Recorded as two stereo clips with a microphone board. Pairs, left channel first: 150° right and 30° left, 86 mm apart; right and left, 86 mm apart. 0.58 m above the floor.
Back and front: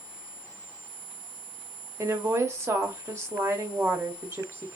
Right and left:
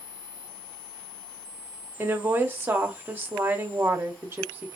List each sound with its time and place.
2.0 s a woman speaking: 45° left, 1.1 m